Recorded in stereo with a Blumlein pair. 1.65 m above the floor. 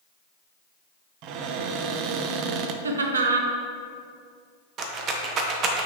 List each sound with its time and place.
1.2 s a cupboard door: 40° right, 0.5 m
2.8 s laughter: 70° right, 0.9 m
4.8 s a rattle: 30° right, 0.9 m